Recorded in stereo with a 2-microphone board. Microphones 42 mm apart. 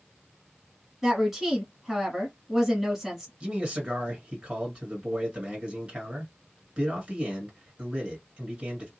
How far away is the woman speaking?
About 1.5 m.